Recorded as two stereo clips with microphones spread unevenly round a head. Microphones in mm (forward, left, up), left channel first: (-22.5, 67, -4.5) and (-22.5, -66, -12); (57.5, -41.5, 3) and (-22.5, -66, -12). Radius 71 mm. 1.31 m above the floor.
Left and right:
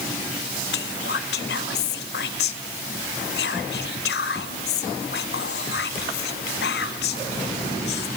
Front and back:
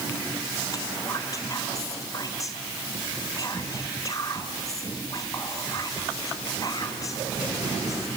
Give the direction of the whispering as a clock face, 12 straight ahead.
9 o'clock.